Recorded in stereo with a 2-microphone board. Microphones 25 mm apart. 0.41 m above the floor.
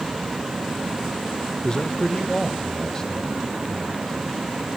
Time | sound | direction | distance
1.6 | a man speaking | 30° left (ahead or behind) | 0.9 m